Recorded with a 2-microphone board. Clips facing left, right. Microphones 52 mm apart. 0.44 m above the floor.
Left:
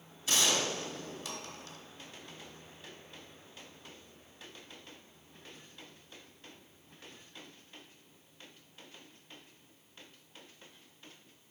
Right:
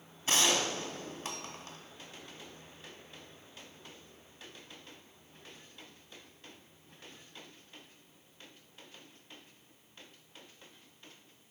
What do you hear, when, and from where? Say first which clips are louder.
0.3 s a gunshot: right 1 dB; 40° right (ahead or behind), 1.1 m